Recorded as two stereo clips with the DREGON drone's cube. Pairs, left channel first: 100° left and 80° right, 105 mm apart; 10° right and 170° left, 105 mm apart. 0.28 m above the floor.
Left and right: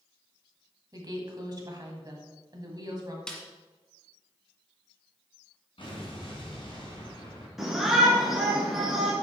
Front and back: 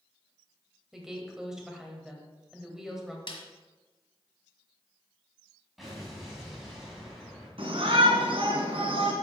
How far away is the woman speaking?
About 1.9 m.